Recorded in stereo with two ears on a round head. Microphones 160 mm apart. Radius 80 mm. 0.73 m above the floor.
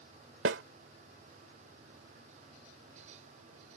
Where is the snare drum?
75° right (ahead or behind).